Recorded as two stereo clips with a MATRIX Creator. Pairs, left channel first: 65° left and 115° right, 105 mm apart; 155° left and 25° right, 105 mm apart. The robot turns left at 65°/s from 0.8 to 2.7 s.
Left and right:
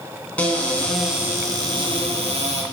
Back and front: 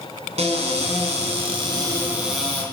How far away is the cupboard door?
About 2.5 m.